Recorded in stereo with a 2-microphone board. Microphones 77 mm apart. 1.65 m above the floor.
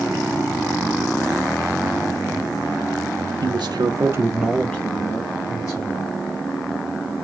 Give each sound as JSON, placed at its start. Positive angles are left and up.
{"t": 3.4, "sound": "a man speaking", "side_deg": -85, "distance_m": 1.2}